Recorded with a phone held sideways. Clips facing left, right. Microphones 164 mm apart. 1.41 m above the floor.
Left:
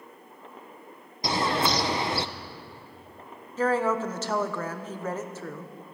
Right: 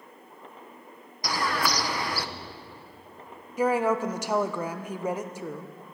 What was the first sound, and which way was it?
A bird, 25° left (ahead or behind).